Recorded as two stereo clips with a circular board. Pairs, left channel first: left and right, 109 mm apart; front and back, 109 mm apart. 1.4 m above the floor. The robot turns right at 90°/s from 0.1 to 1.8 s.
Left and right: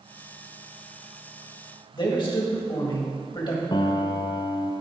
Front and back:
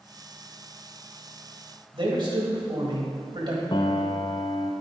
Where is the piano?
45° left, 0.5 m.